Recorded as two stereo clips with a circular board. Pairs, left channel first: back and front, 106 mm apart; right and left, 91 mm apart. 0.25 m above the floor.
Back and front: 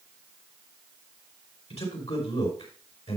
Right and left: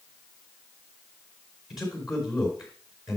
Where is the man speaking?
175° left, 4 m.